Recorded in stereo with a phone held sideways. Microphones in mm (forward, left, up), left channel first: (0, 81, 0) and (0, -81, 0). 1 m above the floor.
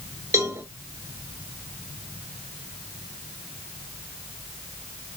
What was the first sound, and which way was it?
A cowbell, 20° right (ahead or behind).